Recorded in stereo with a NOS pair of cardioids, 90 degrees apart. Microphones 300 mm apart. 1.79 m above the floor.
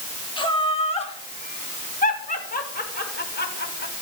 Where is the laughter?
15° left, 5.5 m; by 3.9 s 35° left, 7.5 m.